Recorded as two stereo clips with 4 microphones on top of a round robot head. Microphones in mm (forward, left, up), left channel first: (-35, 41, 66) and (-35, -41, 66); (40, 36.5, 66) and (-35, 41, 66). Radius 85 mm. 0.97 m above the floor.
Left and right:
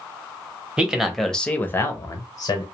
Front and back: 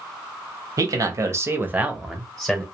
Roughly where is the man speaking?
Behind.